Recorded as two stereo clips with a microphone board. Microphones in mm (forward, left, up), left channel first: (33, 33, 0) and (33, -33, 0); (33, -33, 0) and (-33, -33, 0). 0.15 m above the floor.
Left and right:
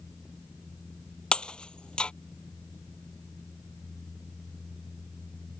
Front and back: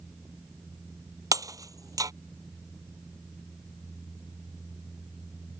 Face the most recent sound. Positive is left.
turn(degrees=165)